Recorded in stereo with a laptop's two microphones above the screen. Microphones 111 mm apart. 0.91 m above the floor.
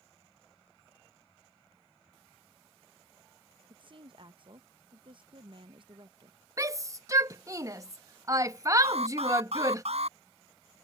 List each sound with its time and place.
3.7 s a woman speaking: 50° right (ahead or behind)
6.6 s a shout: 30° right (ahead or behind)
8.8 s an alarm: 65° right (ahead or behind)